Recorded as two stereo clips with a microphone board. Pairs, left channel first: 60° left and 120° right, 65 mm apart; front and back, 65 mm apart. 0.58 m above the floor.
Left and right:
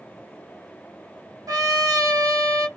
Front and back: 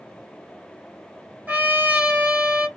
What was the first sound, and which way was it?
A trumpet, 115° right.